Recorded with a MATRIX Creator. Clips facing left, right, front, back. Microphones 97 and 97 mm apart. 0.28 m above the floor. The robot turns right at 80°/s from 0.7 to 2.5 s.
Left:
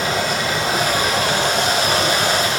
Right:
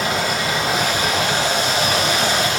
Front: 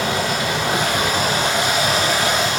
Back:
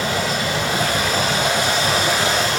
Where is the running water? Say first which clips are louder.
Left 1 dB, front 1 dB; 5° right, 3 m; by 2.6 s 140° left, 3 m.